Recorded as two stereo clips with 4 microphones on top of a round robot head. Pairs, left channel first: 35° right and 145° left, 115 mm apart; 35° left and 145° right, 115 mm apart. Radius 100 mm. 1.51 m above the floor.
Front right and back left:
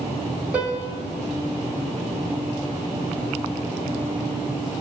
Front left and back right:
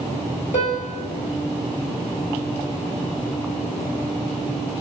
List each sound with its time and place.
0.5 s a piano: 65° left, 2.5 m